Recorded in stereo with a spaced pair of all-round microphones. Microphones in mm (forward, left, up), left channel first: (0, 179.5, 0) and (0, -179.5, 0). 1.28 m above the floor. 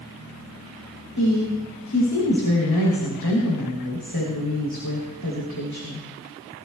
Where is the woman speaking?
80° left, 4 m.